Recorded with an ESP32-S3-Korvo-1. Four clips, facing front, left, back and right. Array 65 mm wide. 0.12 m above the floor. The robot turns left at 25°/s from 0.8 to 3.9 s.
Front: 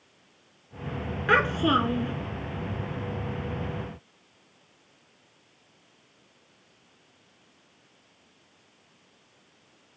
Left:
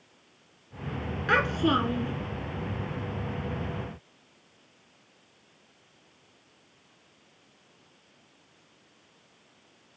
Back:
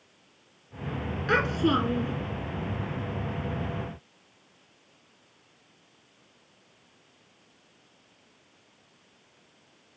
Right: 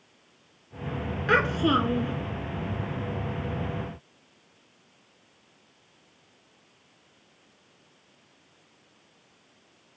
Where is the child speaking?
5° right, 0.8 m; by 2.1 s 25° right, 0.8 m.